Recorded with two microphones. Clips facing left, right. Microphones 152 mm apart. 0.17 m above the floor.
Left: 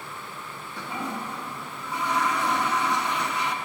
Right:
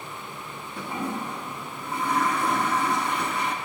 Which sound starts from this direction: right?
A toilet flushing, at 0.8 s.